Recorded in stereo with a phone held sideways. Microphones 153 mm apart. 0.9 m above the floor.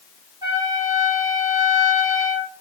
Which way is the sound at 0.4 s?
25° right (ahead or behind).